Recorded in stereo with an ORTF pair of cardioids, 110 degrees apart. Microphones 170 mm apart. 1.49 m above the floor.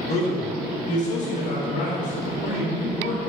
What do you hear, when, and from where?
0.1 s a man speaking: 40° left, 1.6 m; by 3.2 s 50° left, 3.5 m